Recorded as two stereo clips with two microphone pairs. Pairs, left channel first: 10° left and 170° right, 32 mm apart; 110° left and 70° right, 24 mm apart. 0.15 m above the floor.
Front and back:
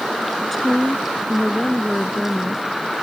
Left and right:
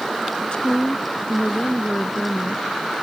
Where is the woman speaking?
100° left.